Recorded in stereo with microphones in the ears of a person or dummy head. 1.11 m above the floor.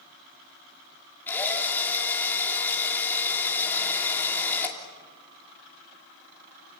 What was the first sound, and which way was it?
A drill, 15° left (ahead or behind).